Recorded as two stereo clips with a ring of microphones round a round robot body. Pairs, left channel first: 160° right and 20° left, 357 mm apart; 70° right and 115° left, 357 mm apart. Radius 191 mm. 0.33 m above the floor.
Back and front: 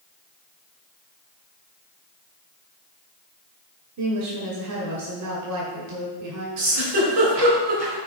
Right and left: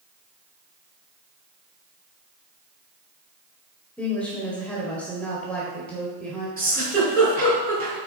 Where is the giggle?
15° left, 3.5 m.